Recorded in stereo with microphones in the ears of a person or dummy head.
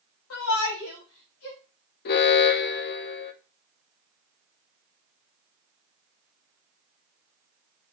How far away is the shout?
About 5 m.